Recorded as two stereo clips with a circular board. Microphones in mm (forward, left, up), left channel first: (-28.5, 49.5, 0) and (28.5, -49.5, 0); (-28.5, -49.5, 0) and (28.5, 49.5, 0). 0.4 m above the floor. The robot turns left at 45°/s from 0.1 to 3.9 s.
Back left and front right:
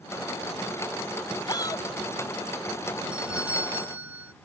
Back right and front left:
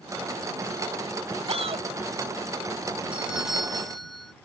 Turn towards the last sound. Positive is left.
turn(degrees=-35)